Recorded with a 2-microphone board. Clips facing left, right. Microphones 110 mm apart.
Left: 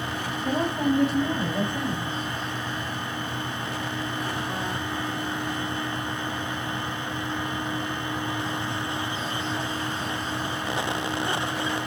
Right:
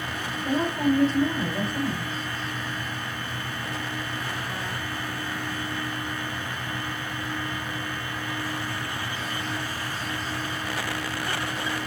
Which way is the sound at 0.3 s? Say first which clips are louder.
Even; centre (ahead or behind).